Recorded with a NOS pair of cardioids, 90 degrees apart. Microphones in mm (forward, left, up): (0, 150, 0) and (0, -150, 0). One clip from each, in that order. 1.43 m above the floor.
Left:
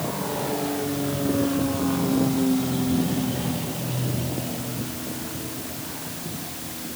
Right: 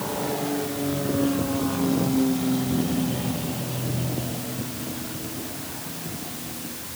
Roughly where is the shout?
I don't hear a shout.